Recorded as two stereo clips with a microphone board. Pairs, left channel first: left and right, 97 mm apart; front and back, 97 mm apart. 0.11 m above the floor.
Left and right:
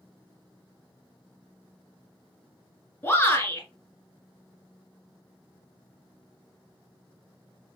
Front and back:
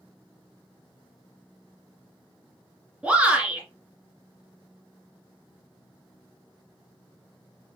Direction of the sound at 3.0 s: 115° left.